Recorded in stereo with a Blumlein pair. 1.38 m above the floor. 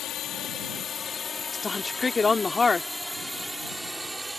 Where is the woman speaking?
15° left.